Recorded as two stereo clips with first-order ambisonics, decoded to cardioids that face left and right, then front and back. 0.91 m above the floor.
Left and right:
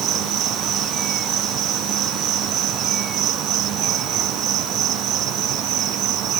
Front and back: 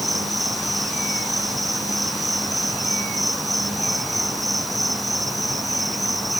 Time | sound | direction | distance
0.0 | an insect | 90° right | ?